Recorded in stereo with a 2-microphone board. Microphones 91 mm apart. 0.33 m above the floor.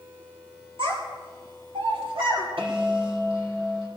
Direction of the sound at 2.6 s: 80° right.